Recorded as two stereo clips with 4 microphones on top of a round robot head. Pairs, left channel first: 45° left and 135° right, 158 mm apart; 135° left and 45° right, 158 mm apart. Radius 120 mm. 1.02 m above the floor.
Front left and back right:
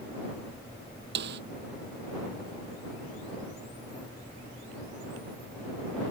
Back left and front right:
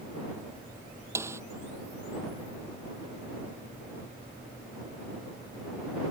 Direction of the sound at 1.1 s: 120° right.